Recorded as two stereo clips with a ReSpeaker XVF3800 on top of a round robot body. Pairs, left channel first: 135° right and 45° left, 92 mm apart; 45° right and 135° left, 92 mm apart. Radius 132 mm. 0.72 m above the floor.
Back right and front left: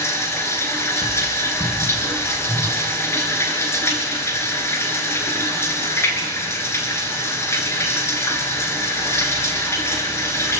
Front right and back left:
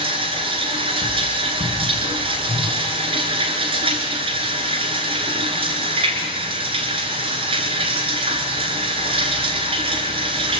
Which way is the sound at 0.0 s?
160° left.